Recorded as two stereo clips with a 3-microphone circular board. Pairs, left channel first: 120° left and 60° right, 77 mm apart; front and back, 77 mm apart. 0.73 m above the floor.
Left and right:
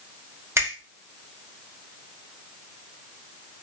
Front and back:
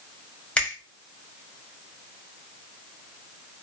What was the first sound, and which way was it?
A finger snap, 65° right.